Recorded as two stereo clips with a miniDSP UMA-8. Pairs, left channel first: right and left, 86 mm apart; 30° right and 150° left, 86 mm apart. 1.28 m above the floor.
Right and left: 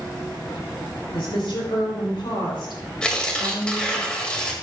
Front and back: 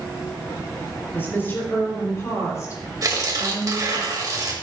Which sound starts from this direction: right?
A woman speaking, at 1.1 s.